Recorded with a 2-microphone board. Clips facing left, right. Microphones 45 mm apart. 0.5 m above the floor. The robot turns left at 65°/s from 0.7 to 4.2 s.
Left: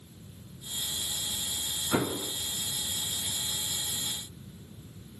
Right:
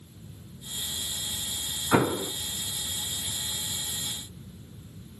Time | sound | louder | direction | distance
1.9 | an explosion | right 6 dB | 40° right (ahead or behind) | 0.5 m